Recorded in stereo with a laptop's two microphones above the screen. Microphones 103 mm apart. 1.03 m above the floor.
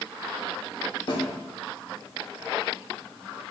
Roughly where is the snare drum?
Left.